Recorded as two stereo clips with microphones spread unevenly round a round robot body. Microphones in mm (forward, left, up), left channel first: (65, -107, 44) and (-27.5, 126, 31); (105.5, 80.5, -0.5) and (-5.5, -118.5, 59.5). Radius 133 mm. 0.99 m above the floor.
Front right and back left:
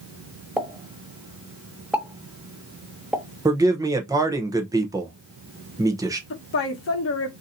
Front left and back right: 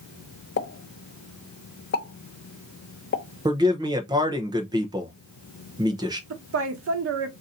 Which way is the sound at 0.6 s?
25° left.